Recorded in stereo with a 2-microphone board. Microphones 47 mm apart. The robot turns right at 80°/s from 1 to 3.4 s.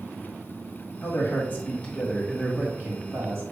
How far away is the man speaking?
About 1.8 m.